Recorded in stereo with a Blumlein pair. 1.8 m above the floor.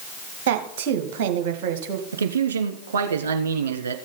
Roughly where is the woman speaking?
Ahead right.